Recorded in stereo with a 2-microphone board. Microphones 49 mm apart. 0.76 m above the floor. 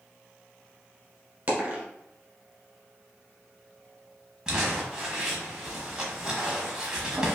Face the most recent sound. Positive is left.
turn(degrees=-15)  # may be behind; listen again after turning